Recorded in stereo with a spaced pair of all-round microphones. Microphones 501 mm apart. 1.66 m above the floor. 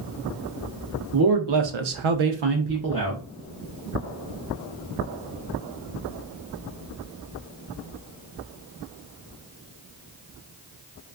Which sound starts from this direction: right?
A man speaking, at 1.1 s.